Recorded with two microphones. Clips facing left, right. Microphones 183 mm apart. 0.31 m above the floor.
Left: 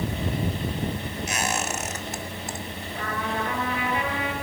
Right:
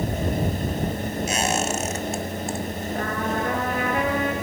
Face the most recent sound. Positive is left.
turn(degrees=-50)  # may be behind; listen again after turning